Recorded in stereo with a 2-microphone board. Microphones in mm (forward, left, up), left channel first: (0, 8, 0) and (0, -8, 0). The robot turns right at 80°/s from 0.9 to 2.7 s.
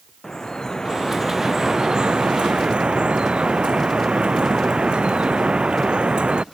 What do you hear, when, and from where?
0.2 s dripping: 145° left; by 6.4 s 75° right